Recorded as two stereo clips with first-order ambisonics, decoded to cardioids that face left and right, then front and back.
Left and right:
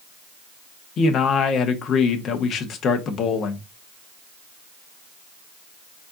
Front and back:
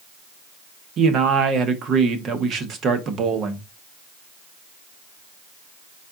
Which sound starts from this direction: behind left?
A man speaking, at 1.0 s.